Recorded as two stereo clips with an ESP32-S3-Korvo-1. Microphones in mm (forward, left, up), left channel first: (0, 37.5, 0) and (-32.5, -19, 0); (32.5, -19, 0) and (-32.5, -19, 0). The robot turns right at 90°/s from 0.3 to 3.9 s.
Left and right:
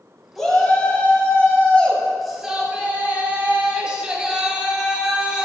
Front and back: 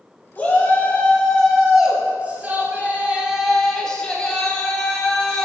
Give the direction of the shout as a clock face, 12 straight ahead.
1 o'clock.